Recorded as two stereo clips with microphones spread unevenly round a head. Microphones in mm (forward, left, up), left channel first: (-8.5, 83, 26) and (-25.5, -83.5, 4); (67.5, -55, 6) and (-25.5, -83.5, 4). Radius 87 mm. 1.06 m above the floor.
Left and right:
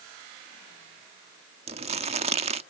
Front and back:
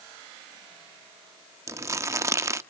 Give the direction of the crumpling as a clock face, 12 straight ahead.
4 o'clock.